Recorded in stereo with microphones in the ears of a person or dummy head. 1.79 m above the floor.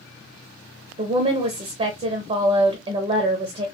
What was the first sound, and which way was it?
A woman speaking, 35° right (ahead or behind).